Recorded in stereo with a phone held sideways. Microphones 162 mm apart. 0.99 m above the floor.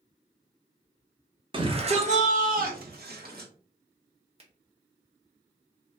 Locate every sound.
1.5 s a shout: 30° right (ahead or behind), 1.0 m; by 3.5 s 75° right (ahead or behind), 1.1 m
4.4 s a finger snap: 40° right (ahead or behind), 0.8 m